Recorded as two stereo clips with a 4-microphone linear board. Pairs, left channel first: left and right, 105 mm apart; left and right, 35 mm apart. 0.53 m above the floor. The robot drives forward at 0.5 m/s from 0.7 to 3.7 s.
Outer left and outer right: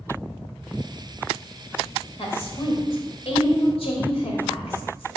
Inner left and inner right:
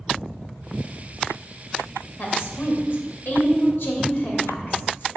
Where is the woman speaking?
60° left (ahead or behind), 2 m; by 5.1 s 65° left (ahead or behind), 2.0 m.